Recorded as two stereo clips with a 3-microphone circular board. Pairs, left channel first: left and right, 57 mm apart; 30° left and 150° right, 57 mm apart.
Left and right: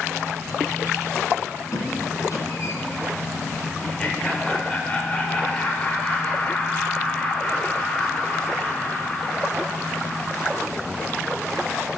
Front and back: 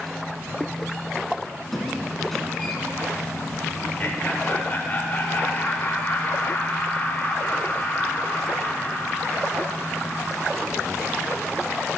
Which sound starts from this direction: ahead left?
Laughter, at 3.8 s.